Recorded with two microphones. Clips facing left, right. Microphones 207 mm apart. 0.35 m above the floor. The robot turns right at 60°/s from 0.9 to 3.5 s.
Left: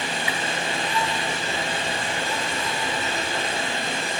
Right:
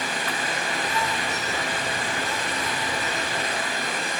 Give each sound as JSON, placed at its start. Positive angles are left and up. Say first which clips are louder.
{"t": 0.3, "sound": "a whoosh", "louder": "left 1 dB", "side_deg": 10, "distance_m": 1.7}